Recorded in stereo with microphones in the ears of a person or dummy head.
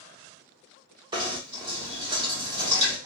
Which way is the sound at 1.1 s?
25° right (ahead or behind).